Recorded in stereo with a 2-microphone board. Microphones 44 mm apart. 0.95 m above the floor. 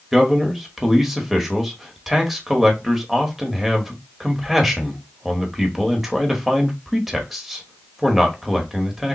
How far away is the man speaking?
About 1.2 m.